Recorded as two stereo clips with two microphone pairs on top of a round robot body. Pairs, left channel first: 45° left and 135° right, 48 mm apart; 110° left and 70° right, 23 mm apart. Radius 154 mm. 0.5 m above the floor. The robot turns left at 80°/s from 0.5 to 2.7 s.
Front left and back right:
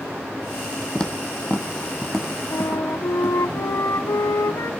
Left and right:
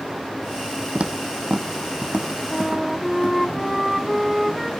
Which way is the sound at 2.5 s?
35° left.